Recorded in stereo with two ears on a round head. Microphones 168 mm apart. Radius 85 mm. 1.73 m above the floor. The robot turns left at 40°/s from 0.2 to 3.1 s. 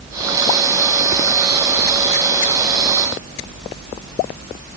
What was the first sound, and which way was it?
Only background noise.